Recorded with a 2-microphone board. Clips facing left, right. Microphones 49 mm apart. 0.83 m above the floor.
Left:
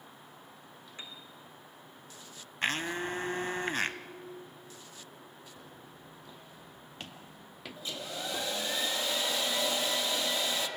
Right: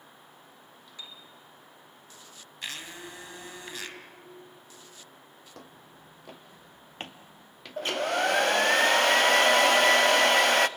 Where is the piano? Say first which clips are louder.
Right 1 dB; 35° left (ahead or behind), 3 m.